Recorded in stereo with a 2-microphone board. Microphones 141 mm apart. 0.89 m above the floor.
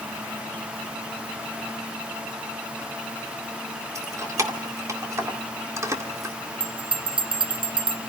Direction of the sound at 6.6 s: 35° right (ahead or behind).